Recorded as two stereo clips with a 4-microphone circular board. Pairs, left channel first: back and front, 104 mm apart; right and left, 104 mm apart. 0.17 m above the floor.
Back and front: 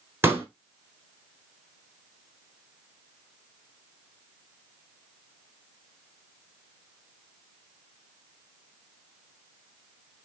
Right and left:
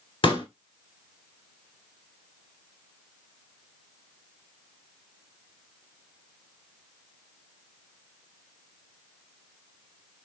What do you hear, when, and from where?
0.2 s a pop: 65° right, 0.8 m